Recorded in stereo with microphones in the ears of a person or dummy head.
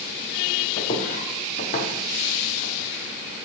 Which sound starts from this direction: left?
Footsteps, at 0.8 s.